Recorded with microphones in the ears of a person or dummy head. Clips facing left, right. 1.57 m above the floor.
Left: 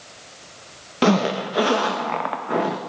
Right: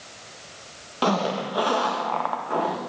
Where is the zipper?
30° left (ahead or behind), 1.2 m.